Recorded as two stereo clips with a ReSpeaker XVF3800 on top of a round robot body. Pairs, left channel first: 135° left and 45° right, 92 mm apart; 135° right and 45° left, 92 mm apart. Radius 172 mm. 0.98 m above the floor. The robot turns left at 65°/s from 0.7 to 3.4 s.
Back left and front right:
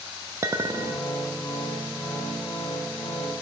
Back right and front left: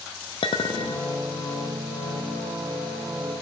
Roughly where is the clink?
Right.